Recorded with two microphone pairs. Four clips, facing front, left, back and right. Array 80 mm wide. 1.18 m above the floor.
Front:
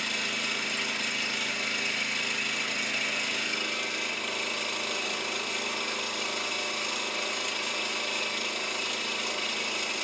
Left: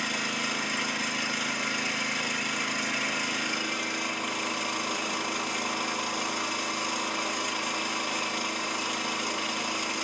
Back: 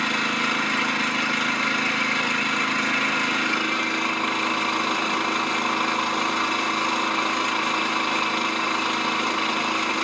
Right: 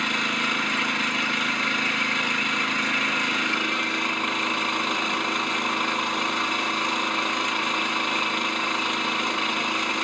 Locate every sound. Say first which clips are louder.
0.0 s an engine running: right 6 dB, back 10 dB; 165° right, 1.4 m